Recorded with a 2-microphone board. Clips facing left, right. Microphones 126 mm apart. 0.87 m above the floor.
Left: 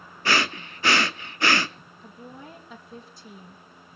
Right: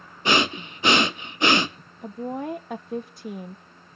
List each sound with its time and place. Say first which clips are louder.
0.2 s breathing: right 3 dB; 20° right (ahead or behind), 0.6 m
2.0 s a woman speaking: right 14 dB; 55° right (ahead or behind), 0.8 m